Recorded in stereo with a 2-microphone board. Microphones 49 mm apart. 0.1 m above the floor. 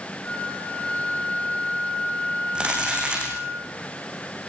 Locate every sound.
0.2 s a flute: 25° left (ahead or behind), 8.5 m
2.5 s crumpling: 20° right (ahead or behind), 8 m